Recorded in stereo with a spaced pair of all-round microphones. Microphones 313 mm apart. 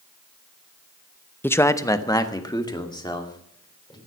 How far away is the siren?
No siren in this recording.